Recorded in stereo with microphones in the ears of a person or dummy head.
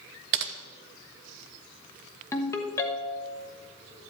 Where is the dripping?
I don't hear dripping.